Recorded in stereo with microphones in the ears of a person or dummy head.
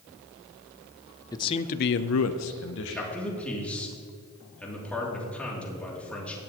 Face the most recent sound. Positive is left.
turn(degrees=10)  # may be behind; listen again after turning